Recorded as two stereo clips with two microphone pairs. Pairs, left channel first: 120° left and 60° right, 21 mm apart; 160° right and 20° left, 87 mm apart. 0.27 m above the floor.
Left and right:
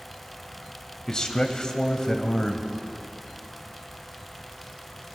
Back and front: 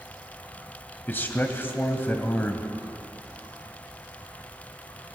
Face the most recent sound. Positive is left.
turn(degrees=145)